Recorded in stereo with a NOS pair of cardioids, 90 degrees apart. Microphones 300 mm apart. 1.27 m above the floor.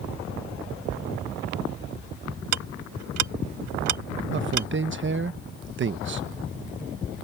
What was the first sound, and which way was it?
Ticking, 70° right.